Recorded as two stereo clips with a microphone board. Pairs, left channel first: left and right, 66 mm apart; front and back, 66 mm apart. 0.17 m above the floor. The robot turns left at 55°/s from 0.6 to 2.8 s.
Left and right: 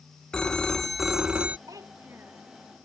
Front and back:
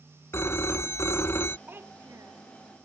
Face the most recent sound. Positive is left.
turn(degrees=180)